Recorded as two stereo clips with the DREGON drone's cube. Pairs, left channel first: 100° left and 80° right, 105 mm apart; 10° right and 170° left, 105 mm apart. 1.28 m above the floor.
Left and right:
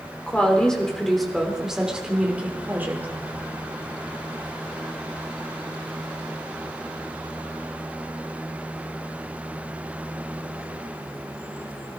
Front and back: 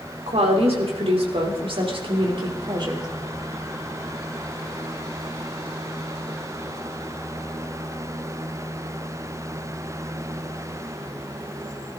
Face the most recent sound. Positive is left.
turn(degrees=-150)